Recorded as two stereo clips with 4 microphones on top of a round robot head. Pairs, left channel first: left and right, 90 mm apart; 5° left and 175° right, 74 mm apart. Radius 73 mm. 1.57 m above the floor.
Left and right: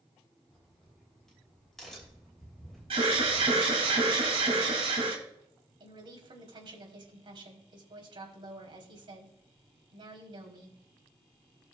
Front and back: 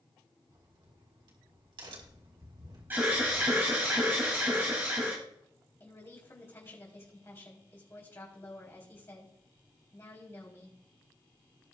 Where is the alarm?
105° right, 3 m.